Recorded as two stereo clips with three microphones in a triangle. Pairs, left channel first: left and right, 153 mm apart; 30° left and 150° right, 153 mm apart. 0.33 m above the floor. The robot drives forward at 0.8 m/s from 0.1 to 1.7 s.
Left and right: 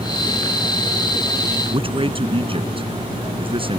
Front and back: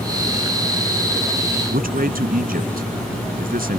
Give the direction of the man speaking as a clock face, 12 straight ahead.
5 o'clock.